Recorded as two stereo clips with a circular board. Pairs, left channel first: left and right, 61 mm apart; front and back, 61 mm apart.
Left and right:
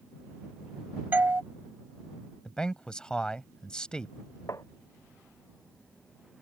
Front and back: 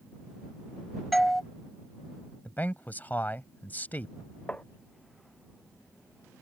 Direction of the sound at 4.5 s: 65° left.